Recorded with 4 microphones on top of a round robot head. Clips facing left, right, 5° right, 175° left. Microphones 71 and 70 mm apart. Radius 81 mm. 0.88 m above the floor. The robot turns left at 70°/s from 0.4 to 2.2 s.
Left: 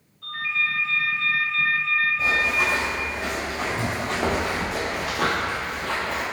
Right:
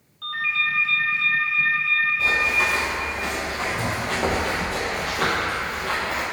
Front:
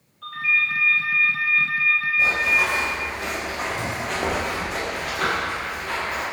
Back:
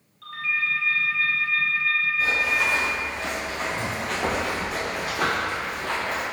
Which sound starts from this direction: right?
A ringtone, at 0.2 s.